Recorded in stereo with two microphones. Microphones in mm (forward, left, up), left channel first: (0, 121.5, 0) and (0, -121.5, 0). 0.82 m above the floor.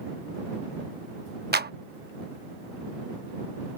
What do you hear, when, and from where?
1.5 s a clap: 45° right (ahead or behind)